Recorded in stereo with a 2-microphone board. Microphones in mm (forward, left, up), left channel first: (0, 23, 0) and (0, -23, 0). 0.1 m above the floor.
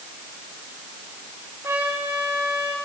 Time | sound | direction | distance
1.6 | a trumpet | 70° right (ahead or behind) | 8 m